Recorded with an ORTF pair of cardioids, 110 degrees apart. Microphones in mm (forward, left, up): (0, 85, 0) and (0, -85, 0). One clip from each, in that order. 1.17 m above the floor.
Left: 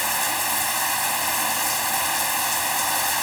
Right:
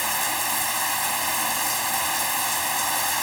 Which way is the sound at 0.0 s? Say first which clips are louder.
Left 1 dB; 25° left.